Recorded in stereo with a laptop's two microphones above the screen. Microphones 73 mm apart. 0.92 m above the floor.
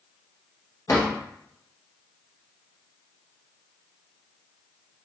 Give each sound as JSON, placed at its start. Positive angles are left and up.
{"t": 0.9, "sound": "a drawer", "side_deg": 55, "distance_m": 0.8}